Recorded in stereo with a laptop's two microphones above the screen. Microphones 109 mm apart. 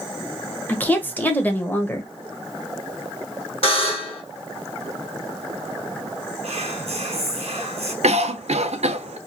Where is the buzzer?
60° left (ahead or behind), 1.2 m.